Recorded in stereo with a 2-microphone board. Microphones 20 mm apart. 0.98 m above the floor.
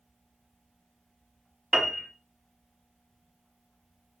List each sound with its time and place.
1.7 s a piano: 20° right (ahead or behind), 1.2 m